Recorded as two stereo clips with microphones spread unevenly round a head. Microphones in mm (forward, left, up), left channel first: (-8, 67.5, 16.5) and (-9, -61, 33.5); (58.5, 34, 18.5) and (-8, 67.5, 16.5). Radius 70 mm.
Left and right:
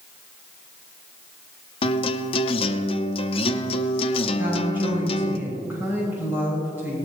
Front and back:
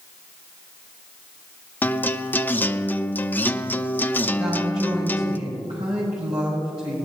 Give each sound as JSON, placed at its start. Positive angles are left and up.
{"t": 1.8, "sound": "a guitar", "azimuth_deg": 40, "distance_m": 0.7}
{"t": 4.4, "sound": "a woman speaking", "azimuth_deg": -165, "distance_m": 7.0}